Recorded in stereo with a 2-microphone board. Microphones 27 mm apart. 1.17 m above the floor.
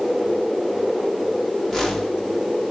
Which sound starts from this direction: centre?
A whoosh, at 1.7 s.